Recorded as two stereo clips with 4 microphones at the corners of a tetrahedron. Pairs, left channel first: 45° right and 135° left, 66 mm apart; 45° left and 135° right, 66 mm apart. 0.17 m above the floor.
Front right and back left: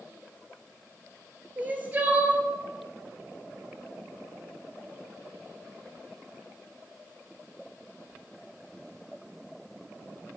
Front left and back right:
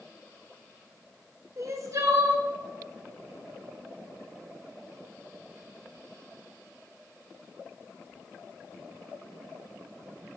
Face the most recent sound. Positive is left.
turn(degrees=-165)